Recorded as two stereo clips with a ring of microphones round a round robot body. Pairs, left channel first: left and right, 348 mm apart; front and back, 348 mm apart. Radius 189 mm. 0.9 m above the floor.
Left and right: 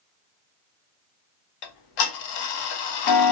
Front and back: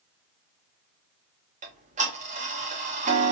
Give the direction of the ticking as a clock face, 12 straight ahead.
8 o'clock.